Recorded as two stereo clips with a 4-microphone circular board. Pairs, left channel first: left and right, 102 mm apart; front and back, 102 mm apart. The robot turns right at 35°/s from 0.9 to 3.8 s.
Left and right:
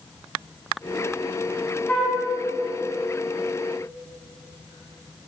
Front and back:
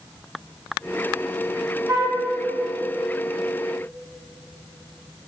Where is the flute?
145° left, 1.6 m; by 2.2 s 160° left, 1.6 m.